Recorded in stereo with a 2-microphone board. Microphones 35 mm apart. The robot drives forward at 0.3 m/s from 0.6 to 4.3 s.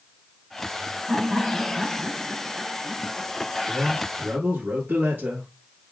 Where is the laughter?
25° right (ahead or behind), 1.9 m; by 3.3 s 20° right (ahead or behind), 2.5 m.